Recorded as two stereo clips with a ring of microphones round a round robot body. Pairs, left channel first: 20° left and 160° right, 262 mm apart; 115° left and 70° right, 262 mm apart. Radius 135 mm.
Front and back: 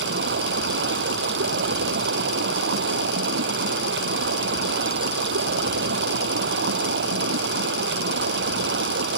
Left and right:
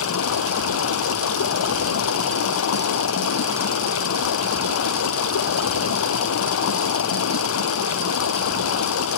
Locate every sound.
0.0 s running water: 150° left